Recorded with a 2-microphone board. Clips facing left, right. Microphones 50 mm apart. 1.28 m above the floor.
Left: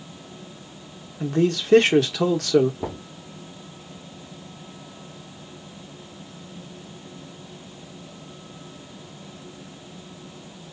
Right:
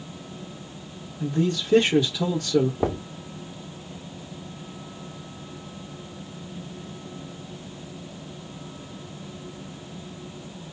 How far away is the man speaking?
About 1.5 m.